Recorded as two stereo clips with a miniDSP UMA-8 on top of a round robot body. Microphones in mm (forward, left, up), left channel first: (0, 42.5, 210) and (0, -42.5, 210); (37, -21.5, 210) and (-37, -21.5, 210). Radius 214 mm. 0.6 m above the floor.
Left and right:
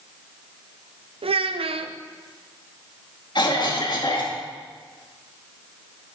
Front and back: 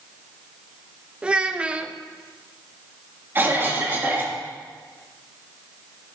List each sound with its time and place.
1.2 s a child speaking: 105° right, 0.6 m
3.4 s a cough: 120° left, 2.5 m